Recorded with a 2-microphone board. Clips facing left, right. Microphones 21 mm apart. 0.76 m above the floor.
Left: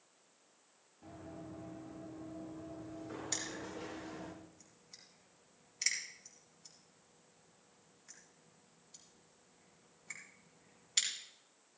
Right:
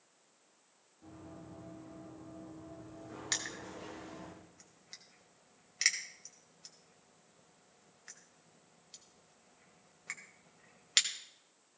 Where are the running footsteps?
5° left (ahead or behind), 7.5 m; by 4.3 s 10° left (ahead or behind), 12.5 m.